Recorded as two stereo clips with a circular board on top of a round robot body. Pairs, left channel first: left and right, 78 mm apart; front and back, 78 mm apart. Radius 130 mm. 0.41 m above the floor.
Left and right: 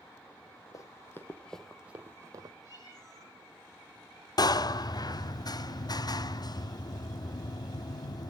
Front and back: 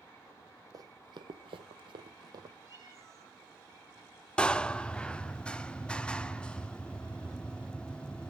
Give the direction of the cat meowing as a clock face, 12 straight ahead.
8 o'clock.